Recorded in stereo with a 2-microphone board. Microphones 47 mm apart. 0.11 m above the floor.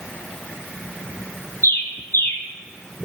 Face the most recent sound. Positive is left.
turn(degrees=65)  # may be behind; listen again after turning